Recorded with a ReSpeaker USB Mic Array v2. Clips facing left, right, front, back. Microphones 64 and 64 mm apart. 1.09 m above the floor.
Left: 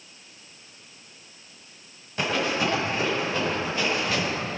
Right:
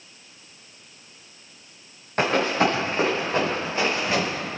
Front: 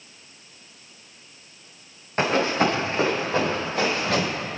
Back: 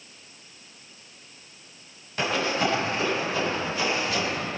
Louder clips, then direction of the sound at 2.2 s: Right 4 dB, front 4 dB; 50° right.